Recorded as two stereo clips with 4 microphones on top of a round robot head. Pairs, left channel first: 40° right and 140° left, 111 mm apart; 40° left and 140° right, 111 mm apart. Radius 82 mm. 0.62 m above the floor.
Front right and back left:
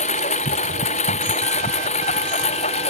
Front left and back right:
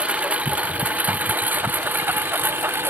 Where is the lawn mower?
60° right; by 2.9 s 65° right.